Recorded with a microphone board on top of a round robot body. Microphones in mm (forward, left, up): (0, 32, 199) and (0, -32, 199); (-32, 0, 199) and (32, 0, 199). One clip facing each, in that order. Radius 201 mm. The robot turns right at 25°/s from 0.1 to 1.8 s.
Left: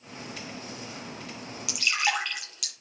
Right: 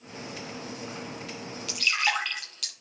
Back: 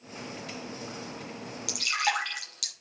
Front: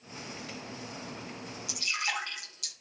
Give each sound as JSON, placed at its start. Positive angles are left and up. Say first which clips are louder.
{"t": 1.7, "sound": "dripping", "louder": "even, back 5 dB", "azimuth_deg": 170, "distance_m": 7.0}